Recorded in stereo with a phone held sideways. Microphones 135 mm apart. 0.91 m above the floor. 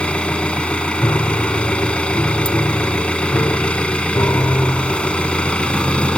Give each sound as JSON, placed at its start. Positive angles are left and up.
{"t": 0.0, "sound": "an engine running", "side_deg": 10}
{"t": 1.0, "sound": "a piano", "side_deg": 20}